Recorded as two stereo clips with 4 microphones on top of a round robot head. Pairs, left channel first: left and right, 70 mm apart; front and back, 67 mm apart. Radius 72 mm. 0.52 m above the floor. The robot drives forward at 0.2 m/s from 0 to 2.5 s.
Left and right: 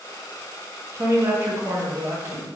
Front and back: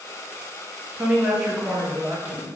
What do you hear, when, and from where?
0.9 s a woman speaking: 100° right, 0.8 m; by 2.5 s 130° right, 0.9 m